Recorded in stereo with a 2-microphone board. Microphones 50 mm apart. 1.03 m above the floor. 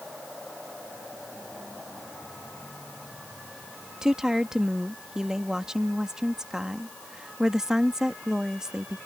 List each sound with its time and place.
4.0 s a woman speaking: 10° right (ahead or behind)